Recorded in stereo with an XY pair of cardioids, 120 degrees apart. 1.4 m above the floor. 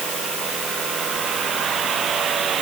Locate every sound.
Only background noise.